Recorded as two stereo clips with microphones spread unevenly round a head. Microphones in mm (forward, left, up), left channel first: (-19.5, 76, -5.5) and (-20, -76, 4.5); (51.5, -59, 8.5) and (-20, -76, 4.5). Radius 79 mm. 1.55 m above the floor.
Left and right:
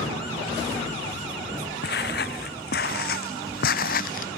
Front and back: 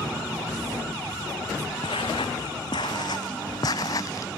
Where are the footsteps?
60° left.